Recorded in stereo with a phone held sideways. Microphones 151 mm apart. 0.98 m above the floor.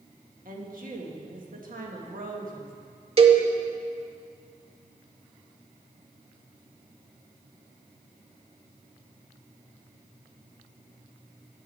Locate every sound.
0.5 s a woman speaking: 65° right (ahead or behind), 1.5 m
3.2 s a cowbell: 40° right (ahead or behind), 0.9 m